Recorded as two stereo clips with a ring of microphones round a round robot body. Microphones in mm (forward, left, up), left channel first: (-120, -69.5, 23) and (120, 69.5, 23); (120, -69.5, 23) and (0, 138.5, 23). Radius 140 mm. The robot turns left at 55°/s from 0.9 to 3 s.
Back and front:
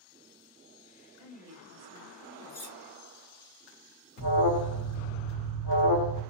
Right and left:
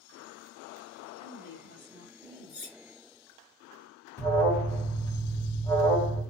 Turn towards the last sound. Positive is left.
turn(degrees=-145)